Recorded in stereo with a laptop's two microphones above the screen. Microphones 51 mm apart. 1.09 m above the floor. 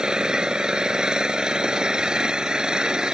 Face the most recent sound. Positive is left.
turn(degrees=-15)  # may be behind; listen again after turning